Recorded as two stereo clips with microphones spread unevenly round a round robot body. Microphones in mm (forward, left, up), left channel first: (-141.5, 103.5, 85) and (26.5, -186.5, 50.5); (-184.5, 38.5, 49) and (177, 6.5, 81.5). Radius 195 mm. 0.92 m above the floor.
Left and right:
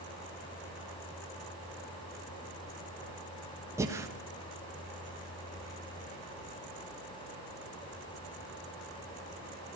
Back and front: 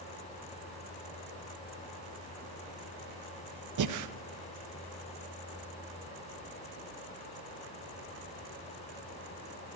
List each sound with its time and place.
3.8 s breathing: 15° left, 1.3 m